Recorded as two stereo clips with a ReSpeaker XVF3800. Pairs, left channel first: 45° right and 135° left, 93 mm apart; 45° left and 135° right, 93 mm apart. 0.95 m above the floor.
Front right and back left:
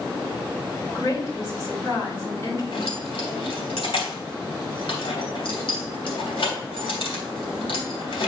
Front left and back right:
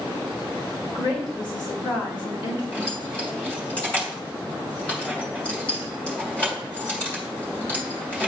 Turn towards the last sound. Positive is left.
turn(degrees=-30)